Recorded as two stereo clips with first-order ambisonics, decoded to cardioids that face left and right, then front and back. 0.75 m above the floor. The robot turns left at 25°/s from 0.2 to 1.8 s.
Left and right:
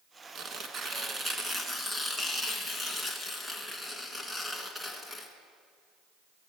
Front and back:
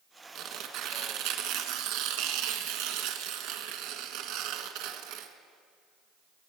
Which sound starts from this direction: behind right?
Tearing paper, at 0.3 s.